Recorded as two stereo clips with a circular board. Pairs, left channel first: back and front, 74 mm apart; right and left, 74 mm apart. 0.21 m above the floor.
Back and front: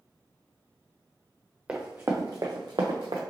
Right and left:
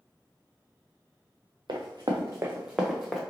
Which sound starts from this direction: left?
Running footsteps, at 1.7 s.